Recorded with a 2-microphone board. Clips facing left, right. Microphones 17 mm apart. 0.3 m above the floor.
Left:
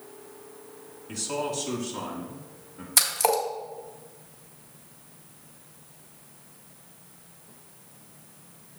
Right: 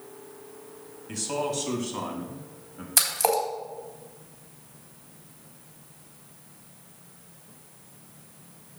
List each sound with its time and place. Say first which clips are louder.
1.1 s a man speaking: right 1 dB; 10° right (ahead or behind), 1.5 m; by 2.9 s 25° right (ahead or behind), 2.5 m
3.0 s a splash: even; 5° right (ahead or behind), 2 m